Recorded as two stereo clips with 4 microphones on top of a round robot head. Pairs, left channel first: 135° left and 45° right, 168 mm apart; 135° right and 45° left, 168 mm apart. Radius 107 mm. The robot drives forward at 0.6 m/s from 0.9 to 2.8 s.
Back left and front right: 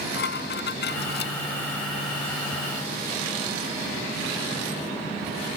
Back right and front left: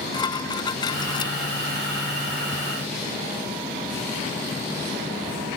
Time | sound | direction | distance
0.1 | dishes clattering | 160° left | ?